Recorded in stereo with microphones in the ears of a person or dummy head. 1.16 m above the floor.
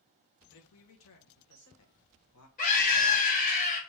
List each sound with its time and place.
0.5 s a man speaking: 70° left (ahead or behind), 1.0 m
2.6 s a scream: 40° left (ahead or behind), 1.8 m